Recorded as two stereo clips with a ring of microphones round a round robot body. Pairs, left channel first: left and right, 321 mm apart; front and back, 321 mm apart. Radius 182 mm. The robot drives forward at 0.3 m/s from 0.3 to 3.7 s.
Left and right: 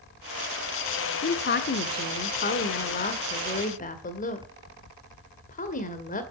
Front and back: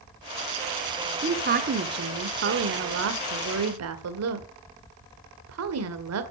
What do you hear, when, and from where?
1.2 s a woman speaking: 130° left, 1.3 m; by 6.2 s 150° left, 1.8 m